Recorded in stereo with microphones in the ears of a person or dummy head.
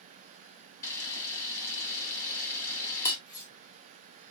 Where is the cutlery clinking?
15° left (ahead or behind), 2 m.